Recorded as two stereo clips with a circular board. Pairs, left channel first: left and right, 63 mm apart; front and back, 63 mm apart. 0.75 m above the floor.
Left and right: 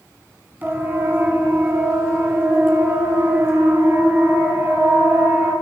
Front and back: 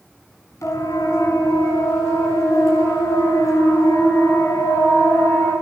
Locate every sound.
0.6 s a siren: 30° right, 5.5 m; by 5.5 s 35° right, 10.5 m